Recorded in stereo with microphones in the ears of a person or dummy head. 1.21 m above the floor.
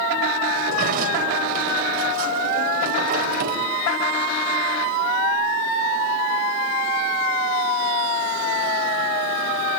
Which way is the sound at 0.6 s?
55° right (ahead or behind).